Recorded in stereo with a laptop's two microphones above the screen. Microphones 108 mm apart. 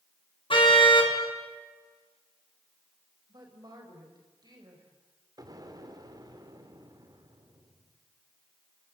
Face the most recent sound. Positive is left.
turn(degrees=-35)  # may be behind; listen again after turning